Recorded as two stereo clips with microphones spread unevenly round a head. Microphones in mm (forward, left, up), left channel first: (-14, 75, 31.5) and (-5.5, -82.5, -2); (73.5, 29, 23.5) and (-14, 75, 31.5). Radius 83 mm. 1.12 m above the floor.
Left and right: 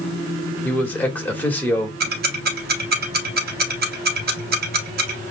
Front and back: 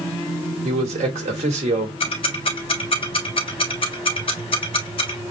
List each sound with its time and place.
0.6 s a man speaking: 175° left, 1.4 m
2.0 s ticking: 70° right, 0.9 m